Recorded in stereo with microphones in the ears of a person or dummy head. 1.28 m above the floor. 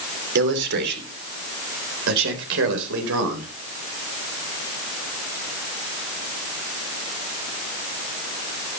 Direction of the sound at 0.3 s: 60° right (ahead or behind).